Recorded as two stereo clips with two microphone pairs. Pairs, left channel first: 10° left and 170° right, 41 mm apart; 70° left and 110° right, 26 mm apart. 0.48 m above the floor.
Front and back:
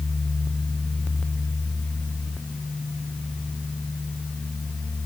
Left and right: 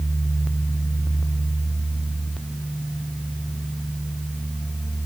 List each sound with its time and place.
Only background noise.